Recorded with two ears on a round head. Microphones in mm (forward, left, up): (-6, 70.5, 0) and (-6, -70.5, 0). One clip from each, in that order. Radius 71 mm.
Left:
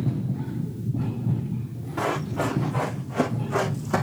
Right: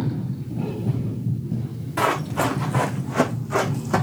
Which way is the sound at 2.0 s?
55° right (ahead or behind).